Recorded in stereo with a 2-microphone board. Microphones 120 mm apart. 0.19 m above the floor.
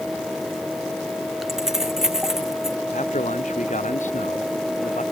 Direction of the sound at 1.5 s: 5° right (ahead or behind).